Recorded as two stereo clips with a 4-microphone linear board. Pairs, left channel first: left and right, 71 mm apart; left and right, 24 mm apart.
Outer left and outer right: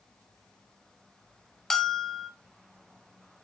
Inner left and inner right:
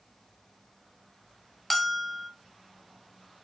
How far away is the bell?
About 0.6 m.